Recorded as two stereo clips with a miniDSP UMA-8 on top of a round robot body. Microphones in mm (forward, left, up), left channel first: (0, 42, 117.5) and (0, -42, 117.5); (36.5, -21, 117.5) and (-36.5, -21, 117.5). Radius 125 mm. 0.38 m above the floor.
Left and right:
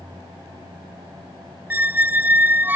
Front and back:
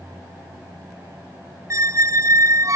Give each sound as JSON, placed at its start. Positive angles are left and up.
{"t": 1.7, "sound": "a squeak", "azimuth_deg": -150}